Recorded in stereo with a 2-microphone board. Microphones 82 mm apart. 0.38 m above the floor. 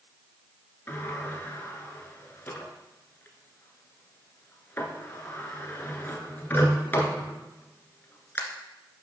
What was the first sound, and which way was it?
A sliding door, 25° left (ahead or behind).